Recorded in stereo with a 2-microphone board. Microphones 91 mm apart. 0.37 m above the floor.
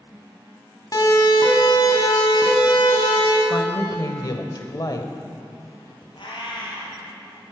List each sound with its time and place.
0.9 s a siren: 45° left (ahead or behind), 2.5 m; by 3.4 s 70° left (ahead or behind), 3.5 m
3.5 s a woman speaking: 45° left (ahead or behind), 1.3 m
6.2 s a cat meowing: 65° left (ahead or behind), 3.5 m